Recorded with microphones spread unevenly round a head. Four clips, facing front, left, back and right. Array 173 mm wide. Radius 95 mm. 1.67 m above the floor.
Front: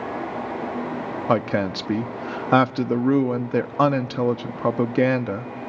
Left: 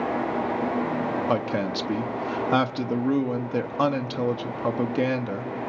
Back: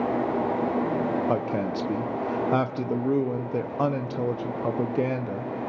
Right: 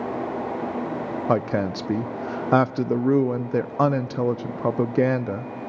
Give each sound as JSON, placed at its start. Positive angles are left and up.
{"t": 1.3, "sound": "a woman speaking", "azimuth_deg": -55, "distance_m": 0.5}